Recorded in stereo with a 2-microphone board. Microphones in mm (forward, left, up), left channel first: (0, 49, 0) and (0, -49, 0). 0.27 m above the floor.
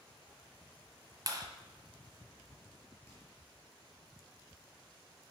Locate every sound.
1.3 s a clap: 40° right (ahead or behind), 1.2 m
3.1 s a microwave: 20° left (ahead or behind), 4 m